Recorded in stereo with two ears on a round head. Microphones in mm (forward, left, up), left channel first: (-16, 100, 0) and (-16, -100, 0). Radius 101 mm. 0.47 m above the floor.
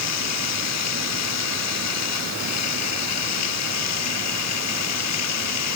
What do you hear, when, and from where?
0.0 s running water: 85° left